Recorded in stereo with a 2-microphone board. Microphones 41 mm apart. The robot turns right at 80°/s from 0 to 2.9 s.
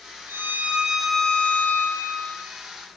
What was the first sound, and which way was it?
A violin, 70° right.